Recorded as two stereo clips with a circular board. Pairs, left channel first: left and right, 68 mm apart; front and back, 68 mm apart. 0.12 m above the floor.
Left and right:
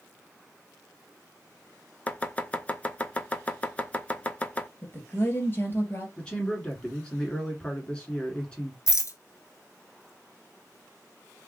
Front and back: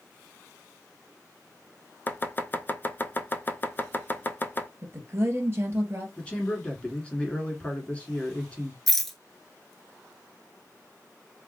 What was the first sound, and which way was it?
Chopping, 35° left.